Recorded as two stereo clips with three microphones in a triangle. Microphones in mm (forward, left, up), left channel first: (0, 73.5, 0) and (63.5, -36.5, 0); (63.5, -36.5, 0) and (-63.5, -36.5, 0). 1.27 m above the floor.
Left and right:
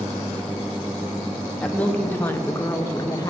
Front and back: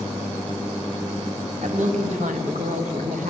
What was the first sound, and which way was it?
A woman speaking, 160° right.